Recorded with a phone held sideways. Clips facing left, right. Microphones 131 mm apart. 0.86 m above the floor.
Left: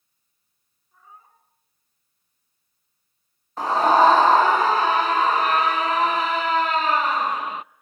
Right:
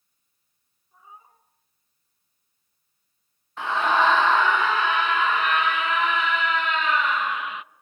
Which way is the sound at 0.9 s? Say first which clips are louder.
Right 1 dB; 15° right (ahead or behind).